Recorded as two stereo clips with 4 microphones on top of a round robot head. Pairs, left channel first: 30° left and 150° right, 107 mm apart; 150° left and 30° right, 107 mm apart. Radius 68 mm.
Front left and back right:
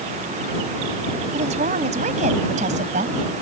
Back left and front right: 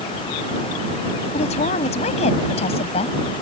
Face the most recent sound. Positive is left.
turn(degrees=-170)